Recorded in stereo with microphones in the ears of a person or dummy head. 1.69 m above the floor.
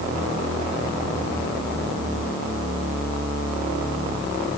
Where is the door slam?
I don't hear a door slam.